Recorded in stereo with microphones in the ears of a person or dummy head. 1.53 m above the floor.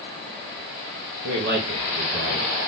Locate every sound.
1.2 s a man speaking: 60° right (ahead or behind), 0.9 m